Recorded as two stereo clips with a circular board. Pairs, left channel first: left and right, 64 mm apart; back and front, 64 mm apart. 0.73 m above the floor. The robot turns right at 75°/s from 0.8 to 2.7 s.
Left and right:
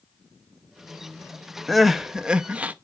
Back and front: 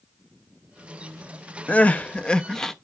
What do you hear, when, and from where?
1.7 s crying: 175° left, 0.5 m; by 2.7 s 105° right, 0.5 m